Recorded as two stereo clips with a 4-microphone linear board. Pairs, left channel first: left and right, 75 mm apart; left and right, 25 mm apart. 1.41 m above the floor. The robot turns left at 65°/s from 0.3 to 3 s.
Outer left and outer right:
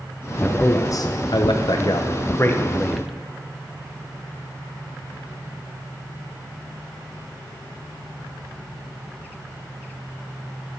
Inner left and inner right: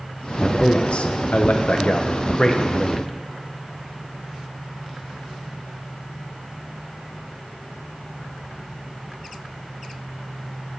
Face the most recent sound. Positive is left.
turn(degrees=-5)